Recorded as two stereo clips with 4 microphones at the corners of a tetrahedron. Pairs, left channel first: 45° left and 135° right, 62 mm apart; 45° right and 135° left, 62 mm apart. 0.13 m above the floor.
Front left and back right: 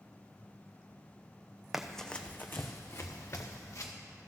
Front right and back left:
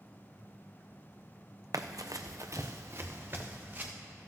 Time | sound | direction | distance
1.7 | running footsteps | 145° left | 0.6 m